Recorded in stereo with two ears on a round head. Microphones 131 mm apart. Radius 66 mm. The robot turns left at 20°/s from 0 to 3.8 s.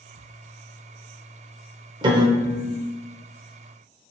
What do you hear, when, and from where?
2.0 s a piano: 35° right (ahead or behind), 0.7 m; by 2.8 s 20° right (ahead or behind), 0.7 m